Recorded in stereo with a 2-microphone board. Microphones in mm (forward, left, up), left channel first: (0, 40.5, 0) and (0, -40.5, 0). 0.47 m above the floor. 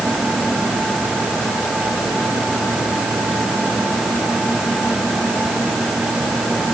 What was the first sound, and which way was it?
Only background noise.